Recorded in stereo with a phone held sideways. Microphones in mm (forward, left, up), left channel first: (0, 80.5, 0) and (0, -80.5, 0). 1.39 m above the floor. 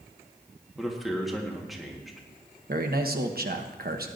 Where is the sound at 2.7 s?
70° right (ahead or behind), 1.1 m.